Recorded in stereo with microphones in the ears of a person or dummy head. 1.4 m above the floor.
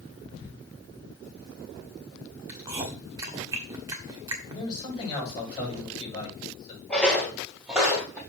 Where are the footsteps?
5° left (ahead or behind), 1.7 m; by 8.2 s 10° right (ahead or behind), 2.5 m.